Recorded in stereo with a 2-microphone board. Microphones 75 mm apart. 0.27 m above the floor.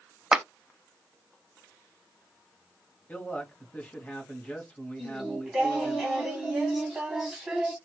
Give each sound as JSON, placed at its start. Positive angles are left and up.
{"t": 0.3, "sound": "a clap", "side_deg": -10, "distance_m": 0.8}
{"t": 3.1, "sound": "a man speaking", "side_deg": 20, "distance_m": 1.3}
{"t": 5.0, "sound": "singing", "side_deg": -5, "distance_m": 1.1}